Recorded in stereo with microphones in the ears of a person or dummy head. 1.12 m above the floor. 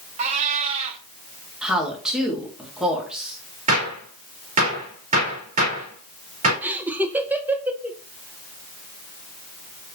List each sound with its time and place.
0.2 s a cat meowing: 40° right (ahead or behind), 0.9 m
1.6 s a woman speaking: 5° right (ahead or behind), 1.5 m
3.7 s a gunshot: 35° right (ahead or behind), 3.5 m
6.6 s laughter: 10° right (ahead or behind), 0.7 m